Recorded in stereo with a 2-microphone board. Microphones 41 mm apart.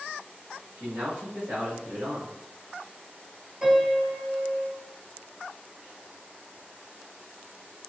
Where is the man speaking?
35° right (ahead or behind), 1.4 m.